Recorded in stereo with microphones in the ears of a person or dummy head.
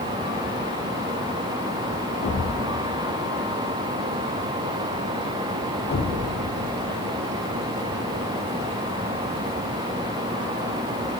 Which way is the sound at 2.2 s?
35° left (ahead or behind).